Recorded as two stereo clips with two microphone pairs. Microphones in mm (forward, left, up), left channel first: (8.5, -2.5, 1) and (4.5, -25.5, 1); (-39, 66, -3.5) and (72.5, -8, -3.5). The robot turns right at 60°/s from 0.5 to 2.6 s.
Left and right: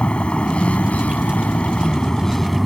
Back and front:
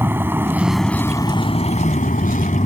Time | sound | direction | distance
0.0 | a vehicle | 40° left | ?